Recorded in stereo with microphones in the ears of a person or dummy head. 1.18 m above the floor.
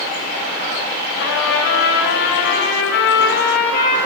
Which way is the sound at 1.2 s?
60° left (ahead or behind).